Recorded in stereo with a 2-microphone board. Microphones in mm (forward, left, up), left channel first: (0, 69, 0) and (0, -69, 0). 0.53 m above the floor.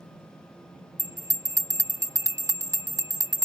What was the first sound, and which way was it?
A bell, 25° right (ahead or behind).